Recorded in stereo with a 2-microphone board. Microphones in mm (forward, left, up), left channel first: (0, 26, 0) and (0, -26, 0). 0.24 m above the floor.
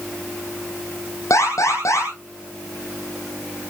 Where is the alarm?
80° left, 7.5 m.